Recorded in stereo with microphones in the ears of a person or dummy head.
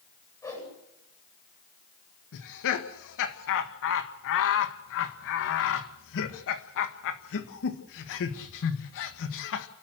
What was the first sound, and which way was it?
A whoosh, 15° left (ahead or behind).